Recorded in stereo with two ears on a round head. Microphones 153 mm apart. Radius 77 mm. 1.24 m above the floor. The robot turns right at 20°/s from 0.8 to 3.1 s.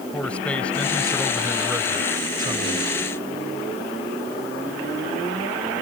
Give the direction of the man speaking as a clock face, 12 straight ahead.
6 o'clock.